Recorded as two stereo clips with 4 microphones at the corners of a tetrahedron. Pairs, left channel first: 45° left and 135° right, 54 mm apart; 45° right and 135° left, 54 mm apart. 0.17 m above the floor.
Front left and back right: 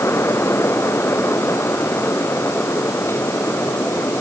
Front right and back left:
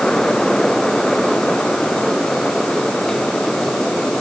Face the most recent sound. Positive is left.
No sound to turn to.